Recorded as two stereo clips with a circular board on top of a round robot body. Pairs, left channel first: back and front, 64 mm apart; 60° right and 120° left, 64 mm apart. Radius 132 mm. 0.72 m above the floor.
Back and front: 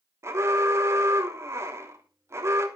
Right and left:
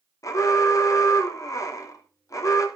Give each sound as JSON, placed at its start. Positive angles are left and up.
{"t": 0.2, "sound": "an alarm", "azimuth_deg": -40, "distance_m": 3.0}